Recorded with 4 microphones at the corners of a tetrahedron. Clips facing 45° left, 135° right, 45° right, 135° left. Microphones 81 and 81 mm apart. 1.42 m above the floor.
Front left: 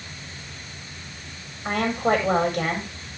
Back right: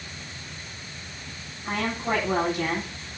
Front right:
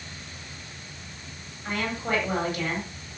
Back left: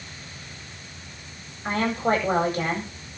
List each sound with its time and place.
1.6 s a woman speaking: 80° left, 8.5 m